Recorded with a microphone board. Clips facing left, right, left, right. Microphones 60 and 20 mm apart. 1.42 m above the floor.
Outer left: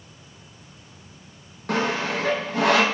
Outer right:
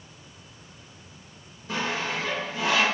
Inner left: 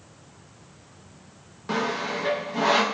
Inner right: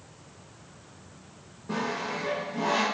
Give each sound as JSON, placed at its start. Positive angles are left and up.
{"t": 1.7, "sound": "sawing", "side_deg": 65, "distance_m": 0.5}